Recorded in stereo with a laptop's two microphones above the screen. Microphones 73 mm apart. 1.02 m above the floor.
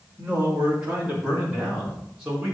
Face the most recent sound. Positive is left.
turn(degrees=-10)  # may be behind; listen again after turning